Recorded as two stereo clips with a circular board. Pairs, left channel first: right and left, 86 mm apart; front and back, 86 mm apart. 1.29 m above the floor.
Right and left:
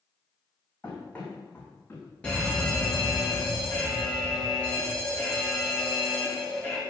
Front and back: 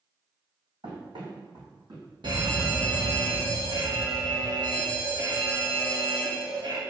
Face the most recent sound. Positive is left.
turn(degrees=-165)